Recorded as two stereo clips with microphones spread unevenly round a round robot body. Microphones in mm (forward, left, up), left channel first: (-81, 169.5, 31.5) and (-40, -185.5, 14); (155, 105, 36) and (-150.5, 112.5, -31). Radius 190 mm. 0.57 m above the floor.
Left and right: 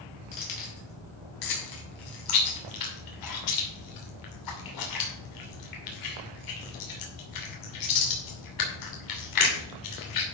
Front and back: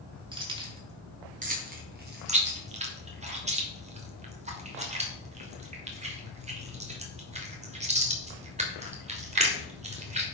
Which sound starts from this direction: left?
Keys jangling, at 0.3 s.